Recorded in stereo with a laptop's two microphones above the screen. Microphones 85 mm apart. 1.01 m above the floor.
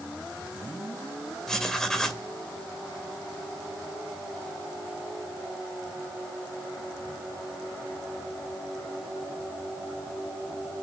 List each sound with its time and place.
1.5 s writing: 5° left (ahead or behind), 2.5 m